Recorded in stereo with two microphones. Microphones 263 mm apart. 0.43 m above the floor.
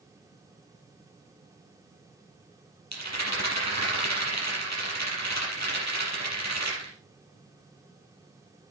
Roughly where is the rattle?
Right.